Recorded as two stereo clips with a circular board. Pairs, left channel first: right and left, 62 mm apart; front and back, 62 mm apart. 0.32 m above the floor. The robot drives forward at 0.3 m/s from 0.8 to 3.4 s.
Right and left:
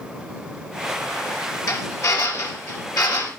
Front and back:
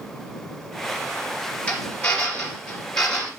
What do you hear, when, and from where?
1.7 s a drill: 70° right, 3 m; by 3.3 s 80° right, 3 m